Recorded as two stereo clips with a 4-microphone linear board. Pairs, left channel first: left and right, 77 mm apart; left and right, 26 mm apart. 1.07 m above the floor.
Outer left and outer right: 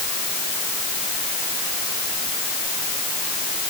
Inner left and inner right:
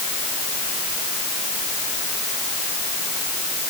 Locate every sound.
Only background noise.